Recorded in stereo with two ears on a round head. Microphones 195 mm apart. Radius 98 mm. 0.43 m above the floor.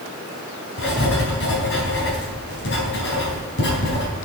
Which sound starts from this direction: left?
Writing, at 0.8 s.